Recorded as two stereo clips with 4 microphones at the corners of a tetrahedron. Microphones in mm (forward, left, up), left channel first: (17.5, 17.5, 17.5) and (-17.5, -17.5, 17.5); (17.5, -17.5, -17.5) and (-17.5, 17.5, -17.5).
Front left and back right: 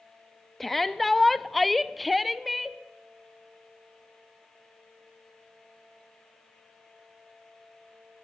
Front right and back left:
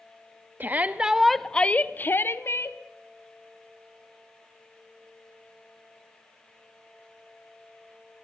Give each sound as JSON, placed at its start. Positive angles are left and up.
{"t": 0.6, "sound": "a shout", "azimuth_deg": 125, "distance_m": 1.0}